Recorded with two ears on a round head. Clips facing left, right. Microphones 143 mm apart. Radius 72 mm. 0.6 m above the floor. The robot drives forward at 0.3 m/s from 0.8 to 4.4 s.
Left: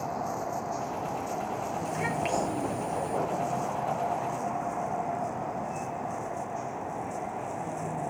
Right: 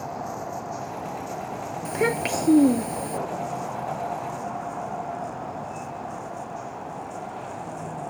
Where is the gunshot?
No gunshot in this recording.